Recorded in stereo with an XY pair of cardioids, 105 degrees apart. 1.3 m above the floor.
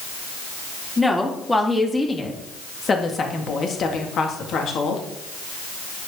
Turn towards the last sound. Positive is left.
turn(degrees=70)